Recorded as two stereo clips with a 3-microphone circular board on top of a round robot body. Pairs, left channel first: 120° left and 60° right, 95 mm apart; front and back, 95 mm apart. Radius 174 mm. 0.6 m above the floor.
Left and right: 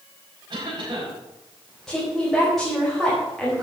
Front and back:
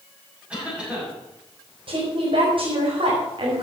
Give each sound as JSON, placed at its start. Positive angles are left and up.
{"t": 0.5, "sound": "a cough", "azimuth_deg": -100, "distance_m": 6.5}
{"t": 1.9, "sound": "a woman speaking", "azimuth_deg": -155, "distance_m": 4.0}